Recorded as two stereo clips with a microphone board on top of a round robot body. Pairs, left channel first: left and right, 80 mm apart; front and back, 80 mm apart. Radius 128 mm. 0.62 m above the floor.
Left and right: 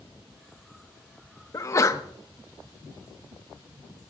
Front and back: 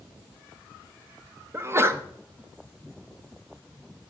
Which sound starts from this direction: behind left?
A sneeze, at 1.5 s.